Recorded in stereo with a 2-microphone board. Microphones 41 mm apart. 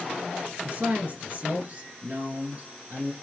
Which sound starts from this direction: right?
A man speaking, at 0.6 s.